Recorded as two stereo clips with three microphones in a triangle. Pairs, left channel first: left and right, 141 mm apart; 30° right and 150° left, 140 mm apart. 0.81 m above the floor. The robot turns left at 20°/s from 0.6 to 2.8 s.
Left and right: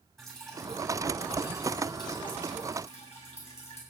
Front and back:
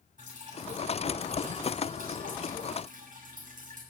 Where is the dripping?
175° left, 7 m; by 3.8 s 135° left, 7 m.